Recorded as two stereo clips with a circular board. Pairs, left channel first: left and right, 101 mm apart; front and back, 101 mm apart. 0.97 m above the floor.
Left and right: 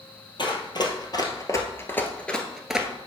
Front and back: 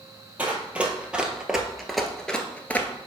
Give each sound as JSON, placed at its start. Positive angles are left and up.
{"t": 0.4, "sound": "running footsteps", "azimuth_deg": 110, "distance_m": 1.5}